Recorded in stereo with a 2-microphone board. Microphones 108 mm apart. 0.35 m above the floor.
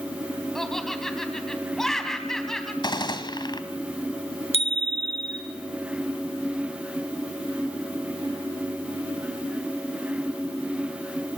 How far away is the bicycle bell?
About 3.5 m.